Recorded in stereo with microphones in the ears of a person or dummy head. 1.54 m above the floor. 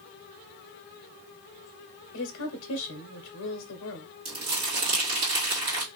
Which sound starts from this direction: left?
A woman speaking, at 2.1 s.